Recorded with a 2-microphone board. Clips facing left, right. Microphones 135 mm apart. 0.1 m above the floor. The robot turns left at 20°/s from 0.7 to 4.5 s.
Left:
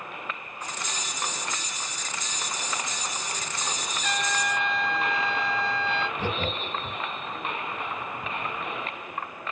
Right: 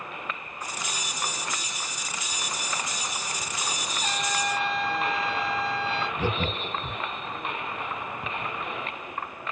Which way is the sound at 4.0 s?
55° right (ahead or behind).